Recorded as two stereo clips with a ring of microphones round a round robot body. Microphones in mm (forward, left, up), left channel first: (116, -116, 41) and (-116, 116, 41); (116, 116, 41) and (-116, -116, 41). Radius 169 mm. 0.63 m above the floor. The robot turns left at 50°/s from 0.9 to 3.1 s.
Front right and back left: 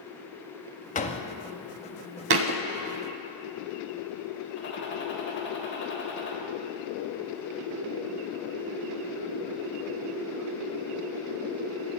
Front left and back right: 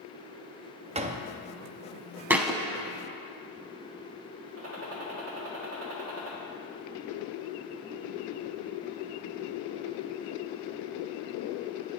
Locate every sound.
0.9 s a door slam: 85° right, 0.7 m; by 1.3 s 100° right, 0.7 m
2.3 s a thud: 145° left, 0.5 m; by 2.6 s 130° left, 0.5 m
4.6 s a gunshot: 95° right, 1.8 m